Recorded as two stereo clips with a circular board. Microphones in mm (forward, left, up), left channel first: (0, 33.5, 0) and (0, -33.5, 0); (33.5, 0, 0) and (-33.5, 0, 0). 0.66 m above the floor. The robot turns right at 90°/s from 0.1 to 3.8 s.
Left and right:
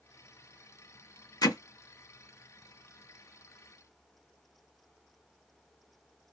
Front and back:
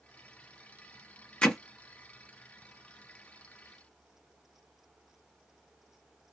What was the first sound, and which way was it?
Hammering, 75° left.